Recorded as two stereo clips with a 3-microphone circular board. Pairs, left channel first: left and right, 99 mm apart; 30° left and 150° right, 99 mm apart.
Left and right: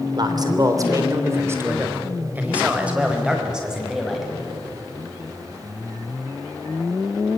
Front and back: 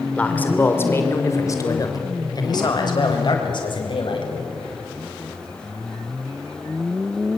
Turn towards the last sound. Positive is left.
turn(degrees=-5)